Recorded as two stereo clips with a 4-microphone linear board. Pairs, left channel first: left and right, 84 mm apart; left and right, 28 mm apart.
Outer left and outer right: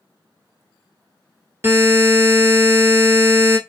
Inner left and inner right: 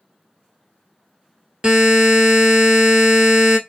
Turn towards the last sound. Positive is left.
turn(degrees=-30)  # may be behind; listen again after turning